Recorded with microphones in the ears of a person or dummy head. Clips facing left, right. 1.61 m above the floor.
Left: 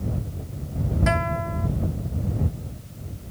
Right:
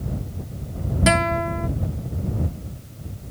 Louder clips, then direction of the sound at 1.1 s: Right 7 dB; 45° right (ahead or behind).